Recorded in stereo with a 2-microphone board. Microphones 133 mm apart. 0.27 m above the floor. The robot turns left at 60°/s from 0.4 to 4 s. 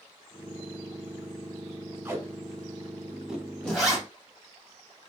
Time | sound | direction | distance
2.0 | tape being pulled | 20° right (ahead or behind) | 1.1 m
3.7 | a zipper | 5° left (ahead or behind) | 1.7 m